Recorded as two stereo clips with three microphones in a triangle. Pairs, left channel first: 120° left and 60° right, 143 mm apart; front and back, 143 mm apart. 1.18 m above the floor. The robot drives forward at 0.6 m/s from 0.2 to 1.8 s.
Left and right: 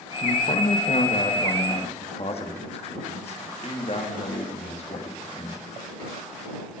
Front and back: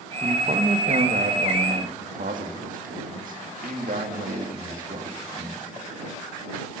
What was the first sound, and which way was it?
A man speaking, 150° left.